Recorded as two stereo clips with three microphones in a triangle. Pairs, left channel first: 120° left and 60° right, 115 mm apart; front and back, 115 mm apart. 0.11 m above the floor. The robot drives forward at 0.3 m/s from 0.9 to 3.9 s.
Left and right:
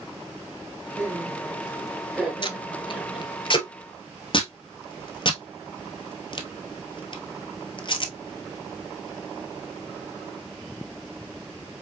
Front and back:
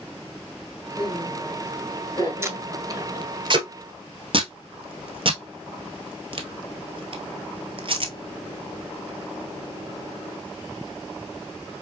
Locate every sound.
1.0 s laughter: 10° left, 2.0 m; by 3.3 s 15° left, 1.6 m
2.4 s tape being pulled: 125° left, 0.6 m; by 8.1 s 155° left, 0.9 m